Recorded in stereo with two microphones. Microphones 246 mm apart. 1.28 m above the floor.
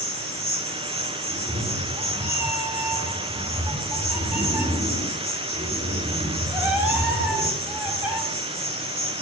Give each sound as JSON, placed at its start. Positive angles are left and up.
{"t": 0.0, "sound": "an insect", "side_deg": -25, "distance_m": 7.5}
{"t": 1.3, "sound": "a cat meowing", "side_deg": -10, "distance_m": 6.0}